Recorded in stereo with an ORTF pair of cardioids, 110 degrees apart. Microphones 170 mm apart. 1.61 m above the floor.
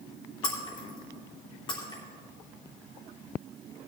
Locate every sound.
0.4 s breaking glass: 30° left, 3 m